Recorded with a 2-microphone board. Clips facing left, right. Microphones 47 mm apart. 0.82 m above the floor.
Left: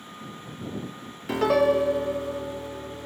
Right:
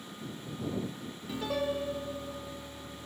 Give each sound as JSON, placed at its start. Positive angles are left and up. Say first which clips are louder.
{"t": 1.3, "sound": "a piano", "louder": "left 12 dB", "side_deg": 85}